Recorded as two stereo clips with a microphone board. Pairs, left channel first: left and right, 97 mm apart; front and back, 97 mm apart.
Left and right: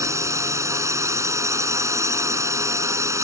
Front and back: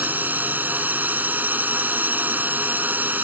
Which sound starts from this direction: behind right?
A drone, at 0.0 s.